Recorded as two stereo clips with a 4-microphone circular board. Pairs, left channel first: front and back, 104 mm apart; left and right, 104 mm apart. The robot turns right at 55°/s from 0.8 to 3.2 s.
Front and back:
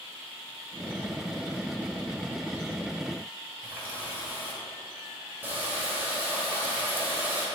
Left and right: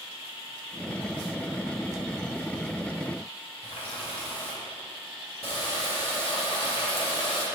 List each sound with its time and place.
3.6 s a running tap: 110° left, 2 m